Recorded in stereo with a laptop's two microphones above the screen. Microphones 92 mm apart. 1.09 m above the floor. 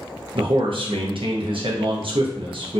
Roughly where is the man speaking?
Right.